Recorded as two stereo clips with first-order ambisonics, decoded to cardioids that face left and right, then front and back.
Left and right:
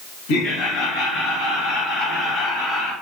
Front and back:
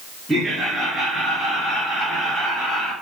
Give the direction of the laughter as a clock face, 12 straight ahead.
9 o'clock.